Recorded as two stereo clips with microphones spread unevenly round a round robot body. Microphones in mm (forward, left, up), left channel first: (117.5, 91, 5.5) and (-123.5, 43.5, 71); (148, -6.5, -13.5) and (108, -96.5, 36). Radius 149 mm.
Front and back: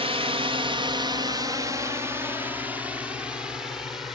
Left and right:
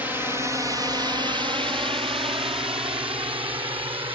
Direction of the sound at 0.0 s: 120° left.